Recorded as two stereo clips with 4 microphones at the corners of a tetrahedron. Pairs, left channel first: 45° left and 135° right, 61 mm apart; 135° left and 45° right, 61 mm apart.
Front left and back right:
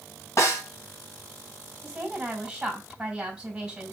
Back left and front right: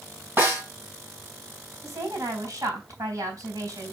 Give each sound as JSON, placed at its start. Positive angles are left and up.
{"t": 0.4, "sound": "a snare drum", "azimuth_deg": 5, "distance_m": 4.0}
{"t": 1.8, "sound": "a woman speaking", "azimuth_deg": -60, "distance_m": 3.5}